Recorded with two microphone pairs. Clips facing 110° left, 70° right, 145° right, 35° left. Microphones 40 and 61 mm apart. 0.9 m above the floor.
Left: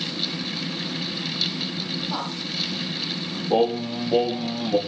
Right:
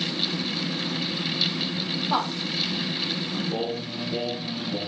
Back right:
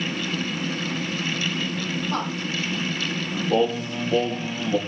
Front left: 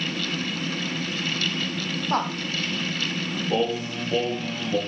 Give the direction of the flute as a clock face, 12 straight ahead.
I don't hear a flute.